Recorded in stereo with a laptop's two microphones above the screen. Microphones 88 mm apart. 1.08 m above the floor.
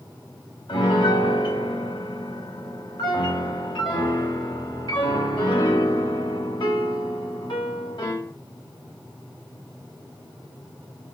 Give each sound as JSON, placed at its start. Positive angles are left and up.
{"t": 0.7, "sound": "a piano", "side_deg": 60, "distance_m": 1.5}